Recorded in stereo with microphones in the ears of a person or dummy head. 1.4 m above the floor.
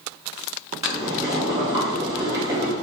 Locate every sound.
0.8 s boiling: 15° right (ahead or behind), 0.8 m